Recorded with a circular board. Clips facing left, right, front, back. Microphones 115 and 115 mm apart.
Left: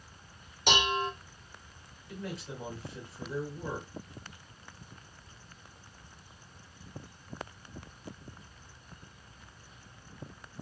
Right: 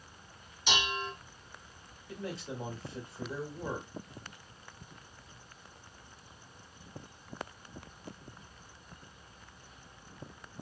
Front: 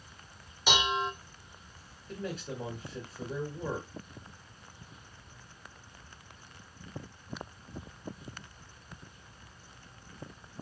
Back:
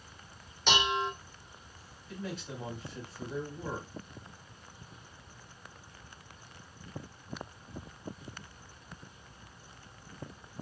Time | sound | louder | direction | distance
0.7 | dishes clattering | left 5 dB, even | 80° left | 0.8 m
2.1 | a man speaking | right 1 dB, front 2 dB | 30° right | 1.6 m